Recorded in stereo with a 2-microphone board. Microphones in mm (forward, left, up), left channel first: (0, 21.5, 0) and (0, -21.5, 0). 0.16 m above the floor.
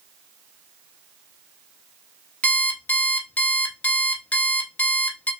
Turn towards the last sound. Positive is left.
turn(degrees=35)  # may be behind; listen again after turning